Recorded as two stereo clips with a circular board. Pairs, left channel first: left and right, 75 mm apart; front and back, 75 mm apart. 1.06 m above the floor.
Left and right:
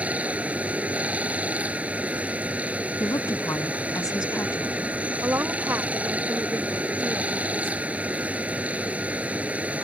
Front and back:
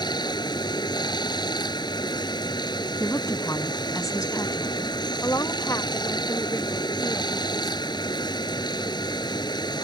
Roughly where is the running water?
Ahead.